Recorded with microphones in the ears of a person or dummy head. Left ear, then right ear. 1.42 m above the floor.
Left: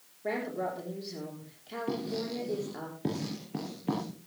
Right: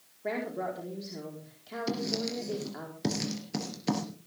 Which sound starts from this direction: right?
Writing, at 1.9 s.